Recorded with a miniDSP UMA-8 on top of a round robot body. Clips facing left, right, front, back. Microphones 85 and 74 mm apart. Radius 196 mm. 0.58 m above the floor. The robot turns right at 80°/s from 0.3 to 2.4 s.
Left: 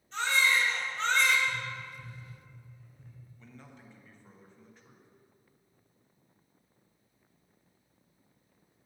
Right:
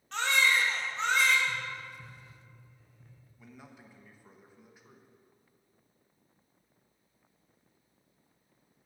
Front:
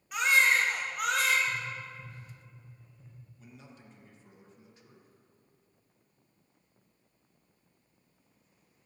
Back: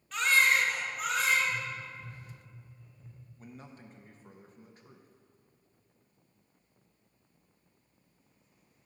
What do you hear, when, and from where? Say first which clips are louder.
0.1 s a baby crying: even, front 1 dB; 75° right, 1.1 m; by 1.4 s 10° left, 1.1 m
1.5 s tapping: even, even; 5° right, 2.5 m; by 3.1 s 70° left, 2.5 m
3.4 s a man speaking: right 2 dB, back 5 dB; 165° right, 1.0 m